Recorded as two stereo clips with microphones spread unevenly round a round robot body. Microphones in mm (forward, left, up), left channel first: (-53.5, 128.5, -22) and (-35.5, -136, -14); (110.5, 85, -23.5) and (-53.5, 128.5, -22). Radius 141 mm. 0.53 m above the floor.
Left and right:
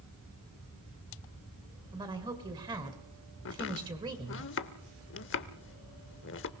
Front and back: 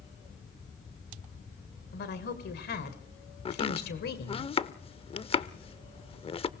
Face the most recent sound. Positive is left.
turn(degrees=45)